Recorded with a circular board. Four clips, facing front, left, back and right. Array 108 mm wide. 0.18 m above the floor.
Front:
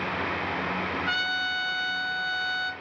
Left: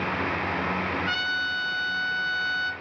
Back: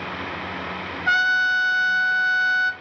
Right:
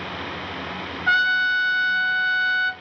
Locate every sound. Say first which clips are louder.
1.1 s a trumpet: right 8 dB, back 9 dB; 130° right, 0.7 m